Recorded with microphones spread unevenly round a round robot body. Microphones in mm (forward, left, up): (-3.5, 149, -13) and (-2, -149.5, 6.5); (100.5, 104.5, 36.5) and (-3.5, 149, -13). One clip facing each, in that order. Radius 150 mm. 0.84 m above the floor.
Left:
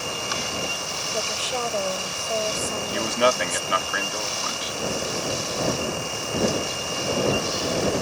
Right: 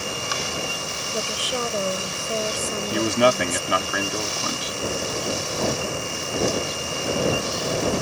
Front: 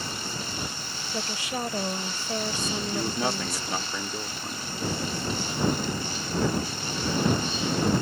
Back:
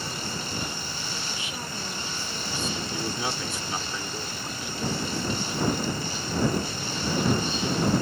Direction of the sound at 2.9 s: 100° right.